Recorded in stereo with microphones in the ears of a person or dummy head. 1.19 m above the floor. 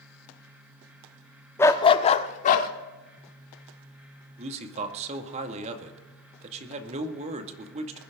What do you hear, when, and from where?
1.6 s a dog barking: 20° left (ahead or behind), 0.8 m; by 2.7 s 50° left (ahead or behind), 1.4 m
4.4 s a man speaking: 35° right (ahead or behind), 1.9 m